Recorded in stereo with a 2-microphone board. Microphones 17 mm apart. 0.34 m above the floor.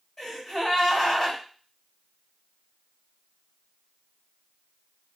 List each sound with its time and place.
0.2 s a gasp: 35° left (ahead or behind), 1.6 m